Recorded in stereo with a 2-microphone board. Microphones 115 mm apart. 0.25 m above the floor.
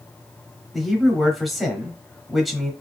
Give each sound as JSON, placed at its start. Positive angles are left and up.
{"t": 0.7, "sound": "a man speaking", "side_deg": 0, "distance_m": 1.1}